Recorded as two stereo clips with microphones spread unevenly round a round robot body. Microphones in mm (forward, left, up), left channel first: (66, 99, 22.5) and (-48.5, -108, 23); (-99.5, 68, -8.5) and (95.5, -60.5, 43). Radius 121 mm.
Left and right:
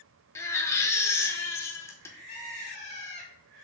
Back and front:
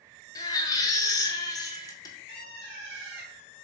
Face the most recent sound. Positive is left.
turn(degrees=5)